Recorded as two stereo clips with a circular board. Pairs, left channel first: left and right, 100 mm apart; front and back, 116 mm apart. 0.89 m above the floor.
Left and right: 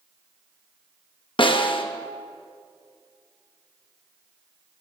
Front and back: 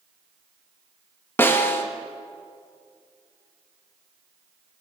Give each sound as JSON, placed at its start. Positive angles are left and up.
{"t": 1.4, "sound": "a snare drum", "azimuth_deg": 70, "distance_m": 0.7}